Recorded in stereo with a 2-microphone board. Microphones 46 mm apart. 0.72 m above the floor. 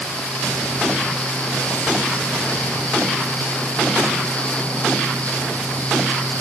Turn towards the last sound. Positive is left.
No sound to turn to.